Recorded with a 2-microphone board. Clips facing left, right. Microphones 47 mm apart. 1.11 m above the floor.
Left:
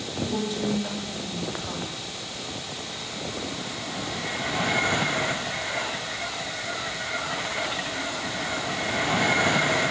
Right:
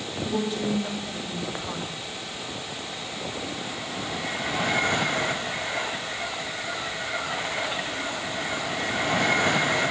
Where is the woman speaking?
10° right (ahead or behind), 5.5 m.